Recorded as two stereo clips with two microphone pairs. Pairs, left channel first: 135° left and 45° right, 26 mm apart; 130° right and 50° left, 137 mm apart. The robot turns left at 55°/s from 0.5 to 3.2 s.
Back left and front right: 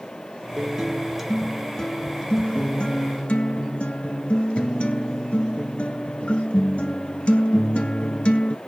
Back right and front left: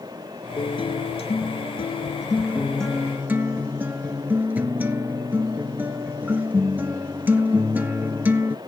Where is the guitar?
90° right, 0.9 m; by 8.6 s 125° left, 0.9 m.